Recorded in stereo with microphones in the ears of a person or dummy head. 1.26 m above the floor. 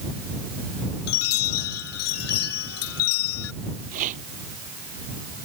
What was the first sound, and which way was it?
A chime, 90° left.